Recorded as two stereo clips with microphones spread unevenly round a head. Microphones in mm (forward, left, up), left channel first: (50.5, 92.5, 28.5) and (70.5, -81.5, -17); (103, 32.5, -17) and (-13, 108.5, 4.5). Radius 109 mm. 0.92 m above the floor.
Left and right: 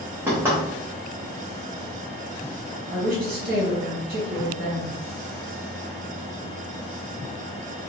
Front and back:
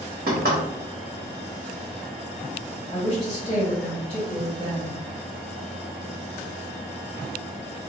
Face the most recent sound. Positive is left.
turn(degrees=-90)